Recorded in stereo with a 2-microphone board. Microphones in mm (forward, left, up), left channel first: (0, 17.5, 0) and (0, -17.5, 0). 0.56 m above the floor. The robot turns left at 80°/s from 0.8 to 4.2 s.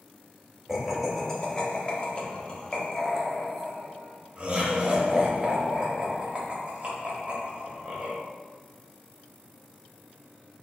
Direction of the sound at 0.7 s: 10° right (ahead or behind).